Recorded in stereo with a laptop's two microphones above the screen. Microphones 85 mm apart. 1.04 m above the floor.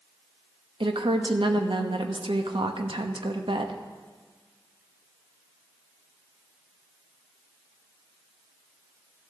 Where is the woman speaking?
75° right (ahead or behind), 1.1 m.